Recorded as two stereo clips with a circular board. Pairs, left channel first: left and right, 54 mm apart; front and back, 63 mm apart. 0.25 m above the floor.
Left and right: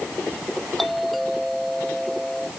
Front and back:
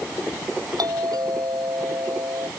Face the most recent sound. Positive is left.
turn(degrees=180)